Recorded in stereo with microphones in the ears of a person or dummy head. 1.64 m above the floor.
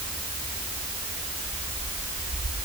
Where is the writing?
I don't hear writing.